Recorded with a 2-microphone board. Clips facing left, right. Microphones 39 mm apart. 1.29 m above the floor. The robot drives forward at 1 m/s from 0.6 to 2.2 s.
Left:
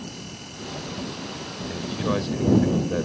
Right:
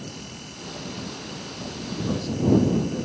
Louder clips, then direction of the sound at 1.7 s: Left 3 dB; 45° left (ahead or behind).